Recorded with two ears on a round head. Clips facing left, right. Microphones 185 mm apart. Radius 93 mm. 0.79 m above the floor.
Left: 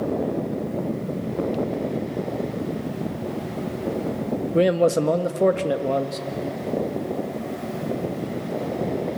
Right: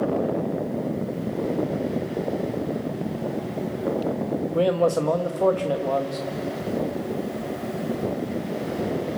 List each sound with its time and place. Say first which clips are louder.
4.5 s a man speaking: left 3 dB; 25° left (ahead or behind), 0.9 m